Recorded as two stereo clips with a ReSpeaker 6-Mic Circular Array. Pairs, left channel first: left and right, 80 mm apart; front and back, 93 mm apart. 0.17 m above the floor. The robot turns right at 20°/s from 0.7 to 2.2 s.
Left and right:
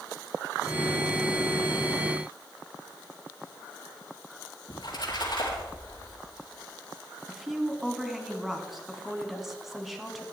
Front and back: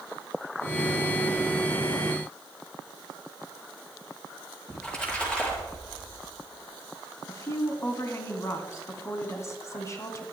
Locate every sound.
4.7 s a splash: 80° left, 4 m
7.3 s a woman speaking: 5° right, 1.4 m